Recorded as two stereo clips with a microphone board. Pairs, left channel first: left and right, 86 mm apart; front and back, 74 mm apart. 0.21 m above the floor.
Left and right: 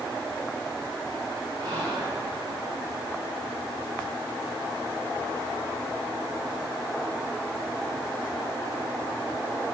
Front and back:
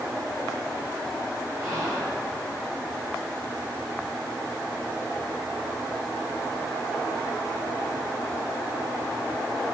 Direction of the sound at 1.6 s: 130° right.